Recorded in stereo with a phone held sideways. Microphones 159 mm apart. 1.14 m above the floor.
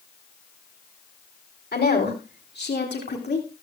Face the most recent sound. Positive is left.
turn(degrees=85)